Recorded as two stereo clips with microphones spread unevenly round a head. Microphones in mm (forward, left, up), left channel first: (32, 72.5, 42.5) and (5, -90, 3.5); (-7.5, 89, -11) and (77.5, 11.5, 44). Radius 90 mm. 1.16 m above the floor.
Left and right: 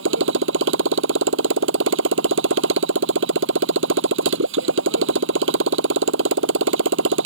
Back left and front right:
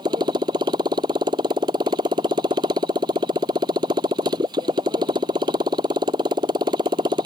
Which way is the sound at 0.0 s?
105° right.